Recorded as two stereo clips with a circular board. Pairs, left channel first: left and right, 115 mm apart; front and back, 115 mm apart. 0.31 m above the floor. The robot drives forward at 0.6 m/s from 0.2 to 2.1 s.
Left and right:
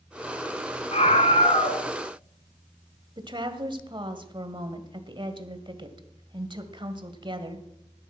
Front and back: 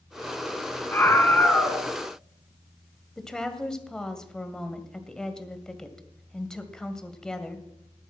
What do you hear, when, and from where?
0.9 s a scream: 70° left, 3 m; by 1.9 s 85° left, 3 m
3.2 s a woman speaking: 80° right, 1.8 m